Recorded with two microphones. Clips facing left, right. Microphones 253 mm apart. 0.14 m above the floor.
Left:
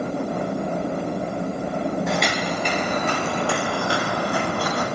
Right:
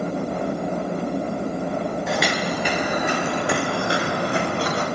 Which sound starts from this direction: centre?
Footsteps, at 2.1 s.